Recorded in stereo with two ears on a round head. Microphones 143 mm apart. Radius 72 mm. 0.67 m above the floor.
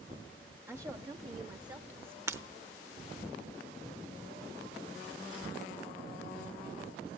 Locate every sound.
0.7 s a woman speaking: 15° right (ahead or behind), 0.6 m; by 2.2 s 35° right (ahead or behind), 1.5 m
2.3 s breaking glass: 15° right (ahead or behind), 0.8 m